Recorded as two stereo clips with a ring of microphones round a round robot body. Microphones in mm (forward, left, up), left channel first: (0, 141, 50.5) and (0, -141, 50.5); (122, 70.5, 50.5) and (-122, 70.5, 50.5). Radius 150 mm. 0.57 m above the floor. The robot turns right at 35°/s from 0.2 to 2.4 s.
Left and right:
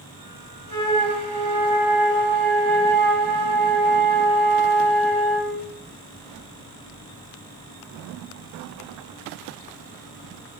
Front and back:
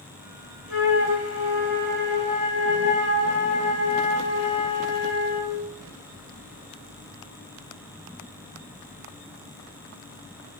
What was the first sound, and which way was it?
A flute, 40° right.